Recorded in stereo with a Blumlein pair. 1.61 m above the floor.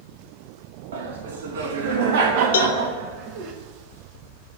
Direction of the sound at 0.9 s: 65° right.